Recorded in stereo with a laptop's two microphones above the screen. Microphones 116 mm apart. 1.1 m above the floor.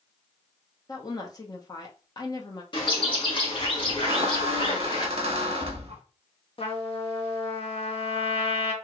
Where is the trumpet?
50° left (ahead or behind), 0.9 m.